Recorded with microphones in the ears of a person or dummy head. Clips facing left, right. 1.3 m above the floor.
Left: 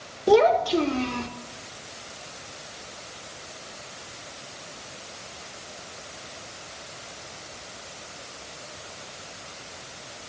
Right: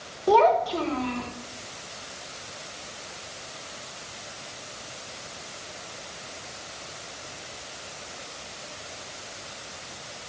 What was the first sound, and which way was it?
A child speaking, 25° left (ahead or behind).